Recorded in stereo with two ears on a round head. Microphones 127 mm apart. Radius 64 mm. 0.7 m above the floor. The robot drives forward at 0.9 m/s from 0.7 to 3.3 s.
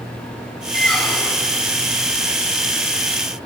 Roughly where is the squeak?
Centre.